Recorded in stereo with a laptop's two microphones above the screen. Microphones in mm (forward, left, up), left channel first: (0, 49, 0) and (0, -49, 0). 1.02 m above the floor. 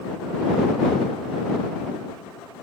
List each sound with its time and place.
Only background noise.